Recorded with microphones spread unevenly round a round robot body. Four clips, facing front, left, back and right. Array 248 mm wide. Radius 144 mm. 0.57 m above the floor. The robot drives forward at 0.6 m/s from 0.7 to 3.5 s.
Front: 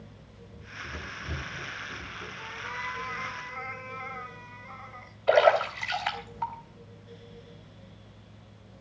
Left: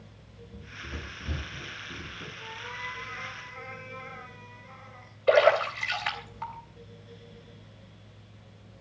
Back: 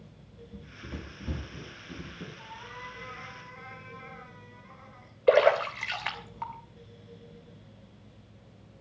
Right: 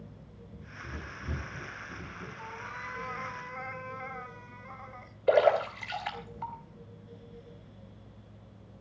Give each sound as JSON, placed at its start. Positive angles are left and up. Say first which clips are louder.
{"t": 0.5, "sound": "running footsteps", "louder": "left 2 dB, front 1 dB", "azimuth_deg": 180, "distance_m": 7.5}
{"t": 2.4, "sound": "a cat meowing", "louder": "left 2 dB, front 6 dB", "azimuth_deg": -60, "distance_m": 1.7}
{"t": 5.3, "sound": "a splash", "louder": "left 2 dB, even", "azimuth_deg": -160, "distance_m": 3.0}